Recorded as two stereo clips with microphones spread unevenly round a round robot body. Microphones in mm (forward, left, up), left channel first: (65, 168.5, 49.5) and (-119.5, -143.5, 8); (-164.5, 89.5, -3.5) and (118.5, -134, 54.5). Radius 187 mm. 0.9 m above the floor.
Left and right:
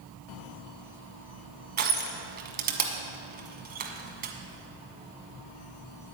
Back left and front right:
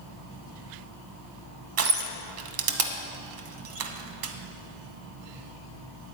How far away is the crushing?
About 1.0 m.